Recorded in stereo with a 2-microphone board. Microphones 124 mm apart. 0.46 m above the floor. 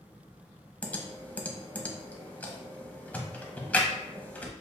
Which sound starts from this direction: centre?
Typing on a keyboard, at 0.8 s.